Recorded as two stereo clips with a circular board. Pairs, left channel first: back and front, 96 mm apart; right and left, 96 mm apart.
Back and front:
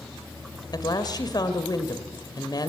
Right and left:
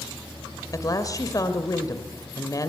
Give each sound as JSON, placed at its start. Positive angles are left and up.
{"t": 0.7, "sound": "a woman speaking", "azimuth_deg": -140, "distance_m": 2.5}